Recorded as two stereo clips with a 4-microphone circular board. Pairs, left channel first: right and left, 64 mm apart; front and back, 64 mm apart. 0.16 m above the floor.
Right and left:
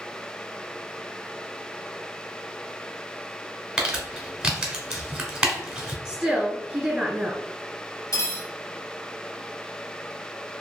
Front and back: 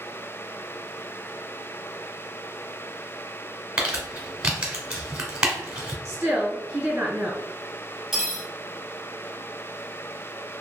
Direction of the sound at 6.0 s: 140° left.